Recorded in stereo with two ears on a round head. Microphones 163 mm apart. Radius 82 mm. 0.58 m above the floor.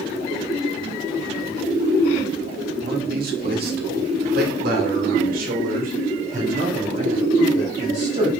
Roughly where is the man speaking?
Right.